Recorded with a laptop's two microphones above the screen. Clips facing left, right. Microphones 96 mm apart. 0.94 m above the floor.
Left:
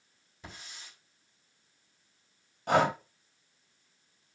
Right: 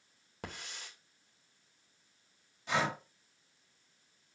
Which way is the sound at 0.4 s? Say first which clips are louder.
Right 3 dB; 70° right (ahead or behind).